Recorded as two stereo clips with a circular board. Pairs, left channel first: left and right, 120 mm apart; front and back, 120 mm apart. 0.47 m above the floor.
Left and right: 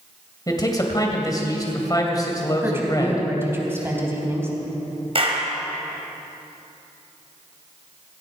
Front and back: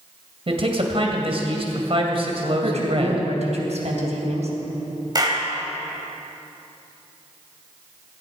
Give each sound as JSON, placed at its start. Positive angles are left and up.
{"t": 0.5, "sound": "a man speaking", "azimuth_deg": 145, "distance_m": 2.5}
{"t": 2.6, "sound": "a woman speaking", "azimuth_deg": -160, "distance_m": 3.5}
{"t": 5.2, "sound": "a clap", "azimuth_deg": -125, "distance_m": 2.5}